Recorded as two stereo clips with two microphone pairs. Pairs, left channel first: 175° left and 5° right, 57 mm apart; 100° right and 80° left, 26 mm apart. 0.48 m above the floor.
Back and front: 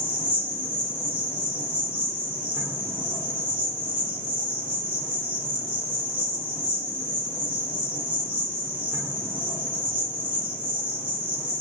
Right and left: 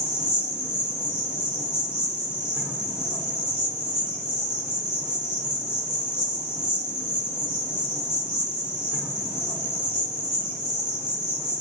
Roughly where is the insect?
Ahead left.